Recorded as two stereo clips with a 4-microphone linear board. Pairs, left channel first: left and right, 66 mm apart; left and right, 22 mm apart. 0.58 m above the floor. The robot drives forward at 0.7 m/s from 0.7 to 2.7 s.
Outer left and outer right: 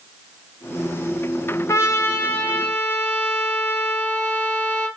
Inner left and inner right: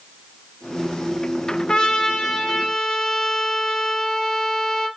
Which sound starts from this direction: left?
A trumpet, at 1.7 s.